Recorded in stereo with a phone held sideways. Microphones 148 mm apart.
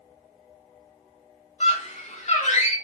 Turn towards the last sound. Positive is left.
turn(degrees=50)  # may be behind; listen again after turning